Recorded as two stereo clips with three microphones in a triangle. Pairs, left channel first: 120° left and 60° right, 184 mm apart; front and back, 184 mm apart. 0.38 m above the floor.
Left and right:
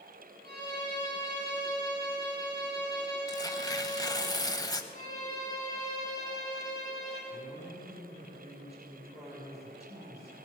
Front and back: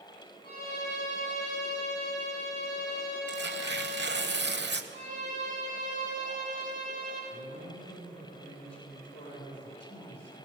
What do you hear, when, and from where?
0.4 s a violin: 35° right, 5.5 m
3.3 s tearing paper: 175° right, 0.9 m
4.9 s a violin: 25° right, 5 m
7.3 s a woman speaking: 5° right, 6 m